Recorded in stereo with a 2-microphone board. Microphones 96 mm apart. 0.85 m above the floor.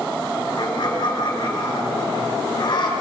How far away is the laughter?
About 5 m.